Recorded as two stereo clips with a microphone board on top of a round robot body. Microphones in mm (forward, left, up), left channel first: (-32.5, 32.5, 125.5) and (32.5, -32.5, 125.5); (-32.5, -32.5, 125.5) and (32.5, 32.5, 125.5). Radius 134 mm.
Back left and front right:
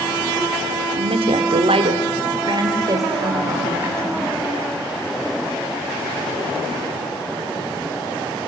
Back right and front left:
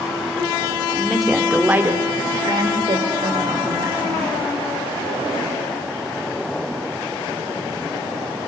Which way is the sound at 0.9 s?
55° right.